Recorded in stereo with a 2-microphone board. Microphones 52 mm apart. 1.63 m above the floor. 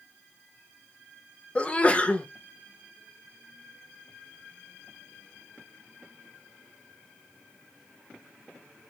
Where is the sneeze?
25° left (ahead or behind), 0.8 m.